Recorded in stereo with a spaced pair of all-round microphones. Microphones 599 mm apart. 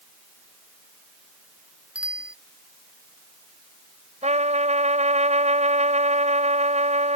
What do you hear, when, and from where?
1.9 s a bicycle bell: centre (ahead or behind)
4.2 s a trumpet: 10° right (ahead or behind)